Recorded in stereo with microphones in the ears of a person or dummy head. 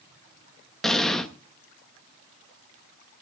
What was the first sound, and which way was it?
An explosion, centre (ahead or behind).